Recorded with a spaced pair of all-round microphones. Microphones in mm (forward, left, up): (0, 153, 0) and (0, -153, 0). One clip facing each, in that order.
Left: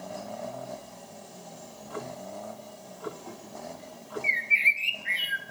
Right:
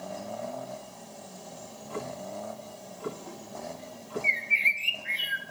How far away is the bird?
About 3 m.